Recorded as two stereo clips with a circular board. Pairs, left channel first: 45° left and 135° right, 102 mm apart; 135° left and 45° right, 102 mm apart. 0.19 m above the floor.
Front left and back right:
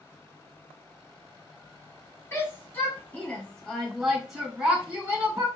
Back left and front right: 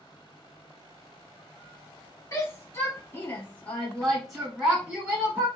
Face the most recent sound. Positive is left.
turn(degrees=-90)